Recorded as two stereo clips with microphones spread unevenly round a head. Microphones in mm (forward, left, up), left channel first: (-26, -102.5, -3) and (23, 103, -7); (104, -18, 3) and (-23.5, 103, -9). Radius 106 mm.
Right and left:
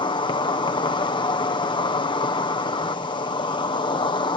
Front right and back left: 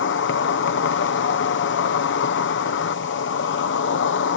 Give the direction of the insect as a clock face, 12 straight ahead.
1 o'clock.